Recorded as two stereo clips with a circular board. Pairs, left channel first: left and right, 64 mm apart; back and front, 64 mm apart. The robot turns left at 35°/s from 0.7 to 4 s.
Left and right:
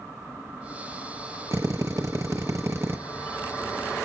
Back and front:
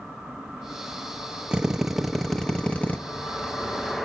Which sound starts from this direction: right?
A drill, at 1.5 s.